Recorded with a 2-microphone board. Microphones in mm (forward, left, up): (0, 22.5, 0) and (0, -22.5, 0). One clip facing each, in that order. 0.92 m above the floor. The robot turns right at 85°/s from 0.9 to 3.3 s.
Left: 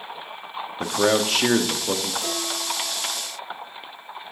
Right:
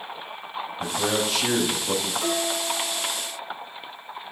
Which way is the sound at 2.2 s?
145° right.